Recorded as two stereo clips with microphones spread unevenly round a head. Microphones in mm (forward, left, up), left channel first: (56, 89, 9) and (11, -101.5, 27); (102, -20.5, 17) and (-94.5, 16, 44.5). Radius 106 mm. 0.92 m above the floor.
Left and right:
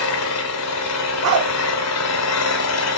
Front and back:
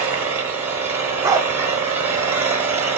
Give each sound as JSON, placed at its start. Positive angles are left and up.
{"t": 0.0, "sound": "an engine running", "azimuth_deg": 95, "distance_m": 1.4}
{"t": 1.2, "sound": "a dog barking", "azimuth_deg": -115, "distance_m": 1.0}